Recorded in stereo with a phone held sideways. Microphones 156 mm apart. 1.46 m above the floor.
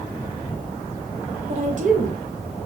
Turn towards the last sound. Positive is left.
turn(degrees=-75)  # may be behind; listen again after turning